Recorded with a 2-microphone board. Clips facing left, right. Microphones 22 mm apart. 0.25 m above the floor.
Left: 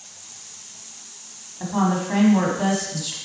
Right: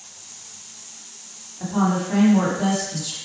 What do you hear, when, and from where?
1.6 s a woman speaking: 25° left (ahead or behind), 2.0 m